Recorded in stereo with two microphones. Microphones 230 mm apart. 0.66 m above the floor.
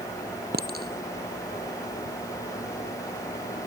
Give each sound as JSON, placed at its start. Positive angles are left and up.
{"t": 0.5, "sound": "a clink", "side_deg": -45}